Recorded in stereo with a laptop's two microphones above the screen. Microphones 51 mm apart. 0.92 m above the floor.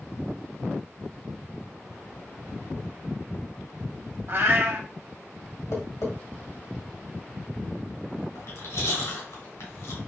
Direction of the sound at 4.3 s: 40° right (ahead or behind).